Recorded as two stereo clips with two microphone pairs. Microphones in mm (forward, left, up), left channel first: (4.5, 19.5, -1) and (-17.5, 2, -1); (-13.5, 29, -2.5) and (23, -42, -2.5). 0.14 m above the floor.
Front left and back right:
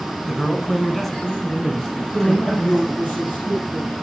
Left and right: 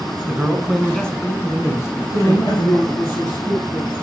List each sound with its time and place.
0.3 s a man speaking: 55° right, 1.0 m; by 2.9 s 110° left, 1.7 m
1.9 s a man speaking: 55° left, 4 m